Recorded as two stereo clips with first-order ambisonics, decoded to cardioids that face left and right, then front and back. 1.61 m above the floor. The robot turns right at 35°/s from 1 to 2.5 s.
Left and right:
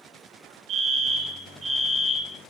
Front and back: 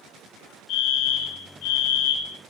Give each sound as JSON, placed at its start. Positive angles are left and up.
{"t": 0.7, "sound": "a fire alarm", "azimuth_deg": -40, "distance_m": 8.0}